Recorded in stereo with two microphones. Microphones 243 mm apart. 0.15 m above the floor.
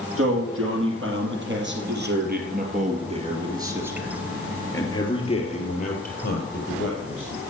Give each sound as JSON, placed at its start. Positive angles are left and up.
{"t": 0.2, "sound": "a man speaking", "side_deg": -60, "distance_m": 5.5}